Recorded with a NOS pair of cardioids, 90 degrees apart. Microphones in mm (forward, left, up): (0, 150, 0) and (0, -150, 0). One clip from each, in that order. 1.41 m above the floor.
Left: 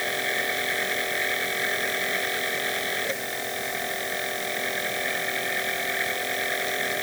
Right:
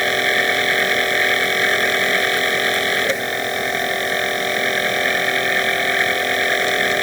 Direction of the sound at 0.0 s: 65° right.